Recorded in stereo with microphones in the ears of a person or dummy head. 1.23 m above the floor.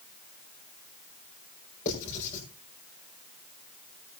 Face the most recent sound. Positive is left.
turn(degrees=40)  # may be behind; listen again after turning